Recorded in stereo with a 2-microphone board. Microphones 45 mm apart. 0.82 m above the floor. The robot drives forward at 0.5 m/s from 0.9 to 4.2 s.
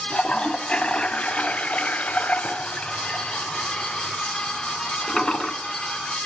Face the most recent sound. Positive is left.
turn(degrees=15)  # may be behind; listen again after turning